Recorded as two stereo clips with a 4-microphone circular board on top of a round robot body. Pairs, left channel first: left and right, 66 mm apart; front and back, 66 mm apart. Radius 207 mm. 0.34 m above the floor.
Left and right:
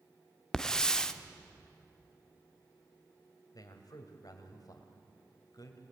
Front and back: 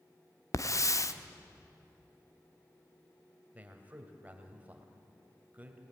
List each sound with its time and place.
0.5 s a hiss: 10° left, 1.4 m
3.5 s a man speaking: 115° left, 3 m